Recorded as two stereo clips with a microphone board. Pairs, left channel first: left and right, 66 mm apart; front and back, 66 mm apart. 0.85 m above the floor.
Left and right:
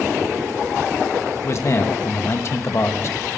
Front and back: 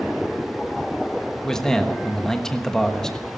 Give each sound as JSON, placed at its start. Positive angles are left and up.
{"t": 1.4, "sound": "a man speaking", "azimuth_deg": 75, "distance_m": 1.2}